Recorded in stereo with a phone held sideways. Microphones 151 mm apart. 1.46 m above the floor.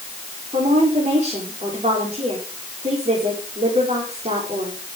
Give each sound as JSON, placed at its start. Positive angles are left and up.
{"t": 0.5, "sound": "a woman speaking", "side_deg": -45, "distance_m": 4.5}